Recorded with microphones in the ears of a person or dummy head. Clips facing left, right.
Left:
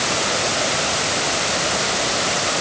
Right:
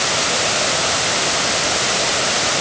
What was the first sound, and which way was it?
Only background noise.